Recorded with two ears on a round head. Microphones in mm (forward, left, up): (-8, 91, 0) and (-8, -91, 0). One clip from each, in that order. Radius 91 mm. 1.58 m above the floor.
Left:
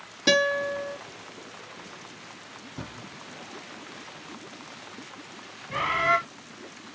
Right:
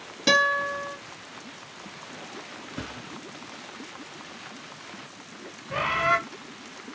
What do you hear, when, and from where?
0.3 s a guitar: 5° right (ahead or behind), 1.9 m
2.8 s a thud: 35° right (ahead or behind), 1.6 m
5.7 s a bird: 5° left (ahead or behind), 0.8 m